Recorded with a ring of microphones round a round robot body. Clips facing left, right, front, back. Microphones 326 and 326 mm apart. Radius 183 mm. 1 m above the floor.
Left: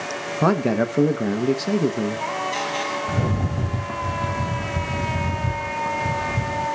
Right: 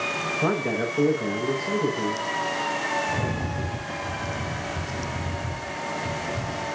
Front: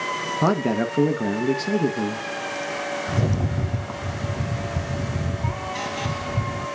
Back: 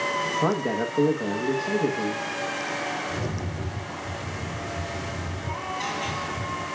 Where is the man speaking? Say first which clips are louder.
Left 6 dB, front 4 dB; 50° left, 1.0 m.